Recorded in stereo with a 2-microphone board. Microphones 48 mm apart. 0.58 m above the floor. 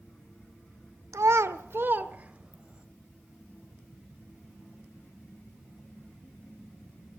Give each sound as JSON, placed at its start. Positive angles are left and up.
{"t": 1.1, "sound": "a child speaking", "side_deg": -80, "distance_m": 0.9}